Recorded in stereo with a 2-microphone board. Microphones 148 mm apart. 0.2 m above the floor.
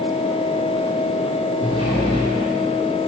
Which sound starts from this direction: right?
A sliding door, at 1.6 s.